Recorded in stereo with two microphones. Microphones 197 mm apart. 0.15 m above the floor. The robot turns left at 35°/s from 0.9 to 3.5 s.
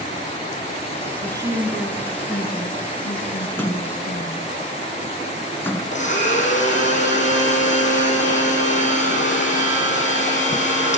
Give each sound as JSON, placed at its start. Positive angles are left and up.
{"t": 1.2, "sound": "a woman speaking", "azimuth_deg": -155, "distance_m": 1.6}
{"t": 3.5, "sound": "a splash", "side_deg": 10, "distance_m": 1.0}
{"t": 5.9, "sound": "a blender", "side_deg": 35, "distance_m": 5.5}